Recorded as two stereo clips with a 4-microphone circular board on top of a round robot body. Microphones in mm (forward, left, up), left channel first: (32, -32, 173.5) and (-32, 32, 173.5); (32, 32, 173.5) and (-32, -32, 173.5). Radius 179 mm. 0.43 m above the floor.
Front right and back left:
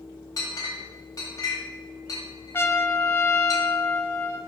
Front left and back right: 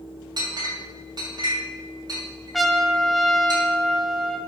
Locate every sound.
0.4 s a clink: 95° right, 2 m
2.5 s a trumpet: 45° right, 1.1 m